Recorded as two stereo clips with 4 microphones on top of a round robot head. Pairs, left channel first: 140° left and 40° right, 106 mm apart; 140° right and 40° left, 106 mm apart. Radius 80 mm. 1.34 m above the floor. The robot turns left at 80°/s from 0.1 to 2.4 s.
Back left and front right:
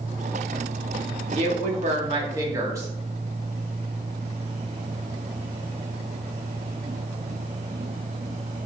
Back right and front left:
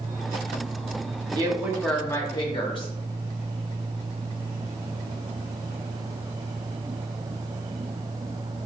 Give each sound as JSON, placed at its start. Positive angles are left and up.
{"t": 1.3, "sound": "a woman speaking", "azimuth_deg": -15, "distance_m": 2.0}